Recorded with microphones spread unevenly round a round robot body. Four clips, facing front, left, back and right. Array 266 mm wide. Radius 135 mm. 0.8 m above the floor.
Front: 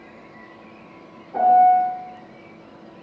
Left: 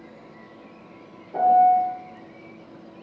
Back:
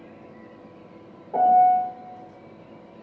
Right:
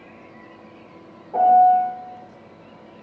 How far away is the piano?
About 3.5 m.